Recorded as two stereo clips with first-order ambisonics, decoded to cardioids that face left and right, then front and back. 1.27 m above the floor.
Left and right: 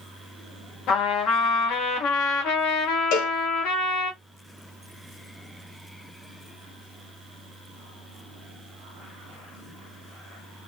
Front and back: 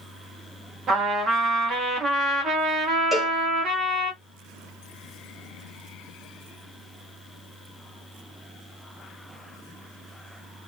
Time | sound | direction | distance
0.9 | a trumpet | 120° left | 1.0 m
3.1 | a cowbell | 95° left | 0.7 m